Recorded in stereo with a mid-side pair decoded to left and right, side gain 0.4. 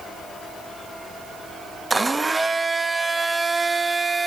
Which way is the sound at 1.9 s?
20° right.